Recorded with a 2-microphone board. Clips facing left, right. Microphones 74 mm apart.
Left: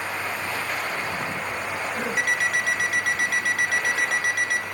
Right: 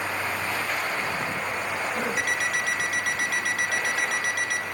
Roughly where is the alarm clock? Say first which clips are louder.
Left 3 dB; left.